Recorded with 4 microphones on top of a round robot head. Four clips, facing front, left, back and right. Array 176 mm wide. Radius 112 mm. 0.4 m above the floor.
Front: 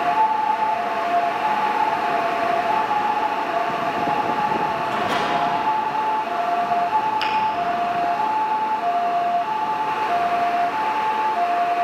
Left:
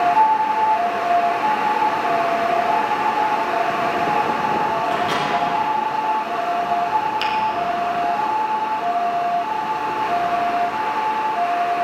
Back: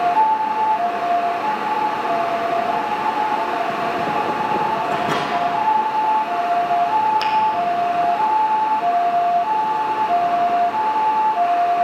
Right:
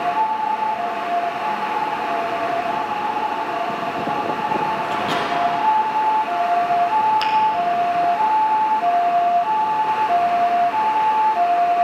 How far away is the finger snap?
About 1.8 m.